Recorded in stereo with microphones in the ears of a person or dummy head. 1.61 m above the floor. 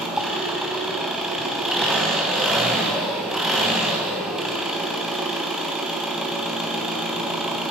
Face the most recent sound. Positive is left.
turn(degrees=0)  # may be behind; listen again after turning